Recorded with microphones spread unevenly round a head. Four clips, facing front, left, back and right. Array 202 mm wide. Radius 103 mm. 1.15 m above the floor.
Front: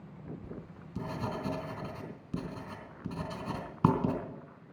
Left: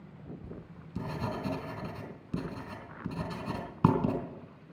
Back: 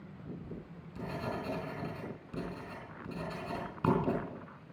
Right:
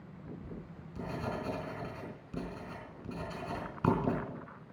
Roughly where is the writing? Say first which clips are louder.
Even, front 1 dB; ahead left.